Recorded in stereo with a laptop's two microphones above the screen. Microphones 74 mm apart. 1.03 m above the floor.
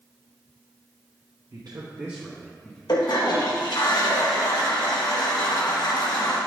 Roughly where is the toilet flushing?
Left.